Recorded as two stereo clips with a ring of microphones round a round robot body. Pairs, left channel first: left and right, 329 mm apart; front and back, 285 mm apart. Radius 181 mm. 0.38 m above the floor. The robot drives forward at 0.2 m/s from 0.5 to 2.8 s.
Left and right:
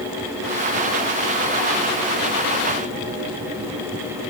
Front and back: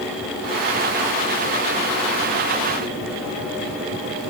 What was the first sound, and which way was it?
Only background noise.